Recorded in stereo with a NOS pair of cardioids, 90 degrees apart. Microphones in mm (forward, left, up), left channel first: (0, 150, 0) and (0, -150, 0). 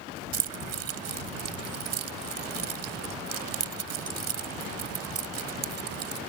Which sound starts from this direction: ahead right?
Keys jangling, at 0.3 s.